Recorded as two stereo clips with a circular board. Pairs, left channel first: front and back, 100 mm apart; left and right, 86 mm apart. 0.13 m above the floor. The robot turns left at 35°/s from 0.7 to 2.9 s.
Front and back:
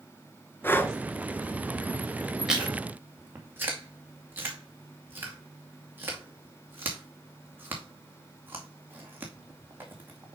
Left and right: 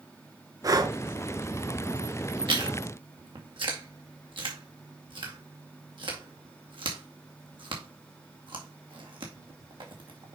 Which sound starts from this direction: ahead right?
Breathing, at 0.6 s.